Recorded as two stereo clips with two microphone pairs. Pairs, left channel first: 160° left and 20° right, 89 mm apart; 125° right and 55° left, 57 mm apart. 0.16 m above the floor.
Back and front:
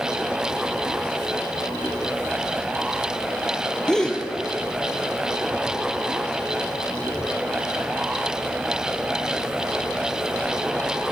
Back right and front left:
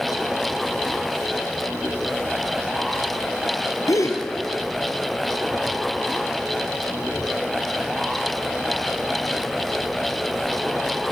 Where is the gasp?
120° right, 1.2 m.